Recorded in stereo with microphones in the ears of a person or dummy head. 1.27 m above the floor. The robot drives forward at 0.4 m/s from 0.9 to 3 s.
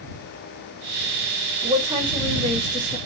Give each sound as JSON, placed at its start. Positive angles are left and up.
{"t": 1.6, "sound": "a woman speaking", "side_deg": -30, "distance_m": 0.6}